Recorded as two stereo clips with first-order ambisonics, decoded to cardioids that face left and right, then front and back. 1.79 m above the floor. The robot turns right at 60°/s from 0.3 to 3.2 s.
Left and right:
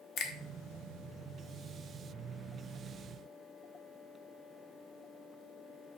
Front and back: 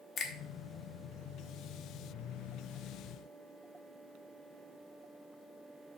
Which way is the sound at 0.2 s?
60° left.